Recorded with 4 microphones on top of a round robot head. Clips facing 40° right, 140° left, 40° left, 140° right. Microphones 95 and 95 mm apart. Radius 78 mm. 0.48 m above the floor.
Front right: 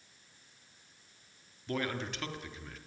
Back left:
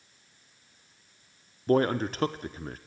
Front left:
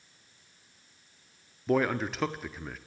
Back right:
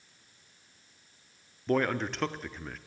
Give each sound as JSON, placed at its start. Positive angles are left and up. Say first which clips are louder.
{"t": 1.7, "sound": "a man speaking", "louder": "back left 12 dB, front left 1 dB", "azimuth_deg": 125, "distance_m": 0.8}